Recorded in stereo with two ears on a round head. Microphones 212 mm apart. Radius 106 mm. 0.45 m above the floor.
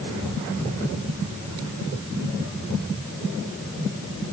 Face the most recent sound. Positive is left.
No sound to turn to.